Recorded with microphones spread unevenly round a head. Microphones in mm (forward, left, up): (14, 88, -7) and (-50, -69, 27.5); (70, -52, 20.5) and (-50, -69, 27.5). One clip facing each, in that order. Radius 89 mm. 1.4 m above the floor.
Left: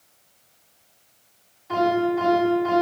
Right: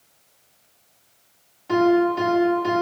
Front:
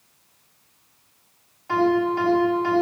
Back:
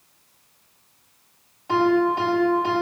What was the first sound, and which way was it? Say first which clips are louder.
A piano: right 4 dB, back 1 dB; 105° right.